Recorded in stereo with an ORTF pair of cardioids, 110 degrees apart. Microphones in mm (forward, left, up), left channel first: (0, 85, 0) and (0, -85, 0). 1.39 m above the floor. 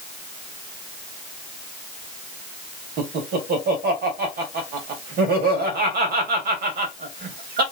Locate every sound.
3.0 s laughter: 65° right, 1.8 m